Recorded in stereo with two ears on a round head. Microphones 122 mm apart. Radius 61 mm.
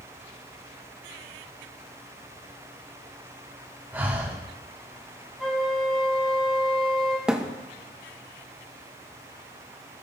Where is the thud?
5° right (ahead or behind), 0.8 m.